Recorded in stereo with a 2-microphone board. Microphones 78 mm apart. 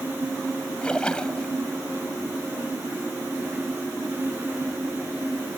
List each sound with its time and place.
0.8 s a splash: 10° left (ahead or behind)